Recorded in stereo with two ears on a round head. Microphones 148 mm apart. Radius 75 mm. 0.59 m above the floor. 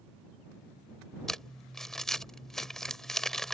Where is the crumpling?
Centre (ahead or behind).